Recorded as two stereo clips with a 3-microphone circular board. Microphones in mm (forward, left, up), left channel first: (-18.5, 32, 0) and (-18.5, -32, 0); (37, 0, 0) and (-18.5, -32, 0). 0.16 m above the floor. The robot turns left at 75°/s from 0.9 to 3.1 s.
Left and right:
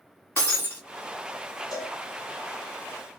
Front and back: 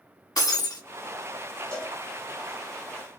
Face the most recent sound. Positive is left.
turn(degrees=0)